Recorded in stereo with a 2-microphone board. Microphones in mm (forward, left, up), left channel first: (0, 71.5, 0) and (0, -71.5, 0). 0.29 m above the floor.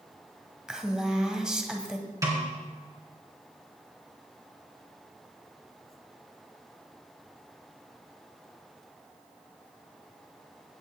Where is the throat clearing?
No throat clearing in this recording.